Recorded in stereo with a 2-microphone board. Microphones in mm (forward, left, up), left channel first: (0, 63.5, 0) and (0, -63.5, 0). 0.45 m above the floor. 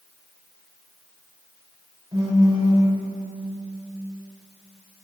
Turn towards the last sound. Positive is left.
turn(degrees=-35)  # may be behind; listen again after turning